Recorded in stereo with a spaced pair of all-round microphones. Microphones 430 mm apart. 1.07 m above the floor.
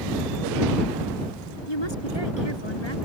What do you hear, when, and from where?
1.7 s a woman speaking: 85° left